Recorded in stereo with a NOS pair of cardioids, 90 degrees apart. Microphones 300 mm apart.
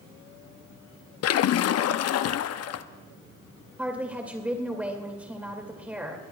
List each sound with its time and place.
1.2 s a splash: 60° left, 0.7 m
3.8 s a woman speaking: 5° right, 2.5 m